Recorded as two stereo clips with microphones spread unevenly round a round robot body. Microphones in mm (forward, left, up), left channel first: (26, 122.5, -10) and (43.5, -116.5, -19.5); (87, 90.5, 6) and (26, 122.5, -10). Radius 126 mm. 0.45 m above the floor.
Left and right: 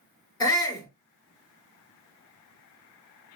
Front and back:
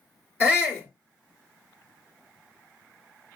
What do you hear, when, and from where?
0.4 s a shout: 25° left, 1.7 m